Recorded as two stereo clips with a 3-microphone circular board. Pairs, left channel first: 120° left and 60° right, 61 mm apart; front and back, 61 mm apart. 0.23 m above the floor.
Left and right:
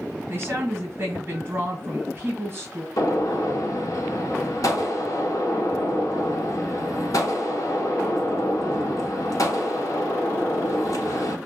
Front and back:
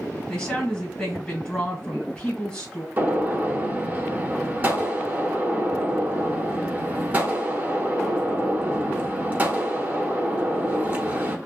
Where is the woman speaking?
60° right, 1.7 m.